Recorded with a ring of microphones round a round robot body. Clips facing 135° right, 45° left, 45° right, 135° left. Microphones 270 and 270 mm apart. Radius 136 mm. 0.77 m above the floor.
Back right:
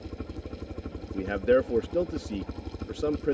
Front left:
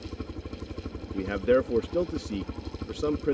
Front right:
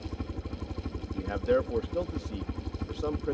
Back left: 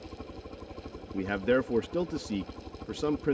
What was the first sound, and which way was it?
A helicopter, 35° right.